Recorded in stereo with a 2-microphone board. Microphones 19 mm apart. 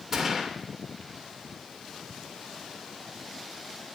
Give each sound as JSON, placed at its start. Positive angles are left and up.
{"t": 0.1, "sound": "a gunshot", "side_deg": -20, "distance_m": 0.9}